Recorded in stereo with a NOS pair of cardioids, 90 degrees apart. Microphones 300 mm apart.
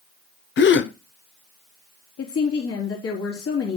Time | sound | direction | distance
0.6 | a gasp | 40° left | 0.9 m
2.2 | a woman speaking | 50° left | 4 m